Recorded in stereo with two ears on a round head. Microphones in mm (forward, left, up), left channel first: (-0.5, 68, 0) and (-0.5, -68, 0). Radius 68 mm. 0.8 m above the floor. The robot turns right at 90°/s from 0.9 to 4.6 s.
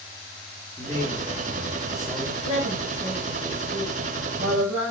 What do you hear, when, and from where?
0.8 s a man speaking: 20° left (ahead or behind), 1.0 m; by 2.3 s 15° right (ahead or behind), 1.0 m
2.4 s a woman speaking: 150° left, 3.5 m; by 4.9 s 15° right, 3.5 m